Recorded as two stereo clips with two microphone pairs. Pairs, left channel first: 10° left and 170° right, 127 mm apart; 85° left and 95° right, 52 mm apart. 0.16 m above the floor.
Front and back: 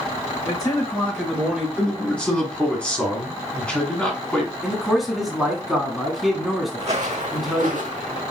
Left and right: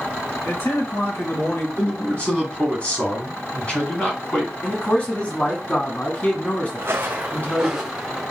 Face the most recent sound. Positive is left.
turn(degrees=180)